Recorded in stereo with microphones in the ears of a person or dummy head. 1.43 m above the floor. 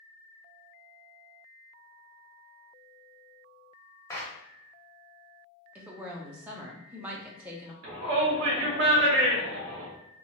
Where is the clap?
10° left (ahead or behind), 0.5 m.